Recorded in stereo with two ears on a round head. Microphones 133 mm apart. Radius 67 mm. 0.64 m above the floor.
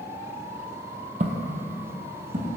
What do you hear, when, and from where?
1.2 s footsteps: 45° right (ahead or behind), 0.9 m; by 2.5 s 60° right (ahead or behind), 2.5 m